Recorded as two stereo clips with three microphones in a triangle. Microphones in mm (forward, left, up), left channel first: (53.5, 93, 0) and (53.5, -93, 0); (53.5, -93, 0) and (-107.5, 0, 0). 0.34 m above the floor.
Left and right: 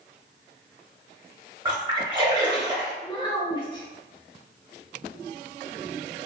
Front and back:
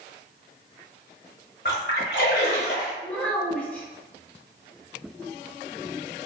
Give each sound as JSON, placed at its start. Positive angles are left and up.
{"t": 1.6, "sound": "a splash", "azimuth_deg": -25, "distance_m": 0.9}
{"t": 3.0, "sound": "a child speaking", "azimuth_deg": 45, "distance_m": 0.7}